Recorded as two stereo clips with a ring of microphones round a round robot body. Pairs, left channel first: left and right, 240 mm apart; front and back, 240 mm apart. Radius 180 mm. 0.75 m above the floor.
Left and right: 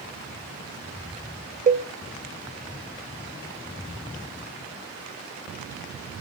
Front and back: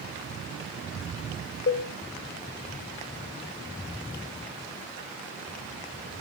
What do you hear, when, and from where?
1.7 s a cowbell: 35° right, 0.6 m